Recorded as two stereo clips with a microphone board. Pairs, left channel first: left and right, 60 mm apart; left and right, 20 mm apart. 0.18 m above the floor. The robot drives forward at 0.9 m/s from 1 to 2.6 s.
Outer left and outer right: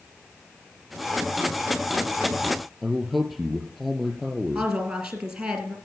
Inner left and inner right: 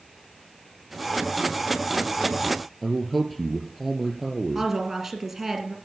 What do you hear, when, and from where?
2.8 s a man speaking: 5° left (ahead or behind), 3 m
4.5 s a woman speaking: 10° right (ahead or behind), 3 m